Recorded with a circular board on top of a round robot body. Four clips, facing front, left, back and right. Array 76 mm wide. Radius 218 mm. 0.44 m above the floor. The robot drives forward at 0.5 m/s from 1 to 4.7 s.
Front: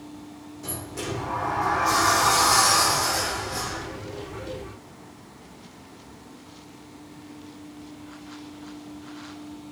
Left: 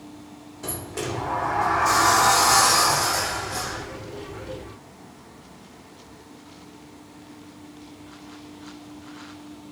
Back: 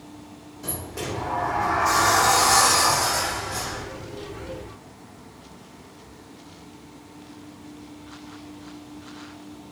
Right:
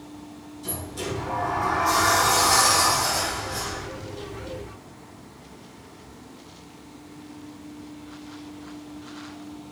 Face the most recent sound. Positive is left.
turn(degrees=145)